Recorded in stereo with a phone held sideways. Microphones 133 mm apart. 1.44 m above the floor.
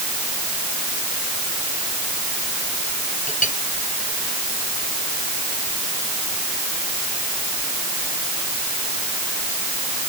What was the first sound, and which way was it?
A clink, 70° left (ahead or behind).